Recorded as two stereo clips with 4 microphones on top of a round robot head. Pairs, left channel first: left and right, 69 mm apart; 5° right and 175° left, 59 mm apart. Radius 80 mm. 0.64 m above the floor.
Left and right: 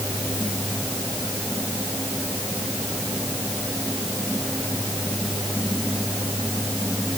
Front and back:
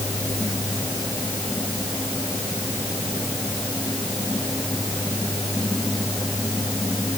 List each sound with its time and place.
Only background noise.